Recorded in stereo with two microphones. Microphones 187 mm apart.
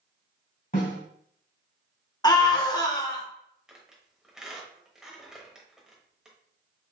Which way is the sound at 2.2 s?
20° left (ahead or behind).